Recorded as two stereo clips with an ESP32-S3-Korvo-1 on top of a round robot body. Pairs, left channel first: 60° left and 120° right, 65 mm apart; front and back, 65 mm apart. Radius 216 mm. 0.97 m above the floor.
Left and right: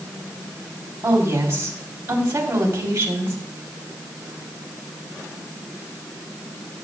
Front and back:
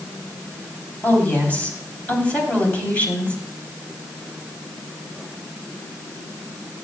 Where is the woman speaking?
65° right, 4 m.